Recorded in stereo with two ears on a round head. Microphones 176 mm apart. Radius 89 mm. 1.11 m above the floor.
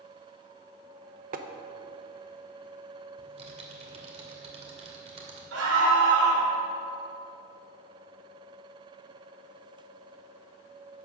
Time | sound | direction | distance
1.3 | tapping | 45° right (ahead or behind) | 0.9 m
3.2 | typing on a keyboard | 35° right (ahead or behind) | 2.5 m
5.5 | a scream | 80° right | 5 m